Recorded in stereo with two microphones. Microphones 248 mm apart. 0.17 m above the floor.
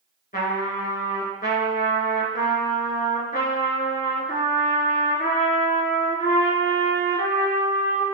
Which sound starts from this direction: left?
A trumpet, at 0.3 s.